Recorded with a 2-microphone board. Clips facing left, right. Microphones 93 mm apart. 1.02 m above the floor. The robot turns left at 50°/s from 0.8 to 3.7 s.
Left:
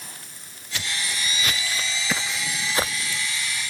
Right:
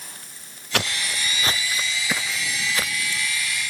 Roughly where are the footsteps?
Right.